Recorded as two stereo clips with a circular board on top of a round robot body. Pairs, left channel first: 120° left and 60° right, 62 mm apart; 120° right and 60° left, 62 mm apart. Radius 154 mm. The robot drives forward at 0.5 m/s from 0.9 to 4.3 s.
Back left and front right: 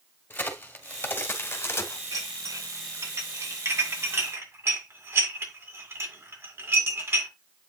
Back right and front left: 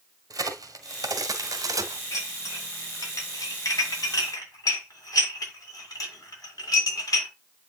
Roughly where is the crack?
Ahead left.